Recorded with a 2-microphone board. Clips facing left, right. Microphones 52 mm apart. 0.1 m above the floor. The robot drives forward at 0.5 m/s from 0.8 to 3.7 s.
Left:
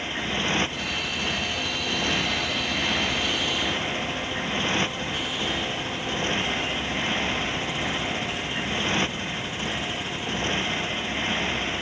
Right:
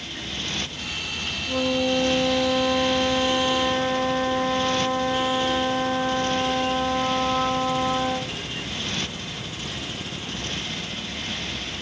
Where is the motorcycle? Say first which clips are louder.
Left 6 dB; 35° left (ahead or behind).